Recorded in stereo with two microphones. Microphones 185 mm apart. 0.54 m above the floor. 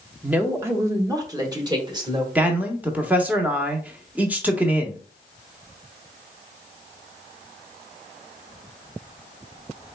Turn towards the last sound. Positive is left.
turn(degrees=-10)  # may be behind; listen again after turning